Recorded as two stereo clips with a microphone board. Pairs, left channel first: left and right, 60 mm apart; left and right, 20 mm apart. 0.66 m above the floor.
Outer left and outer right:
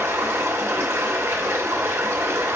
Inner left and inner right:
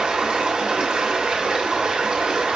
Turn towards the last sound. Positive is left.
turn(degrees=-40)  # may be behind; listen again after turning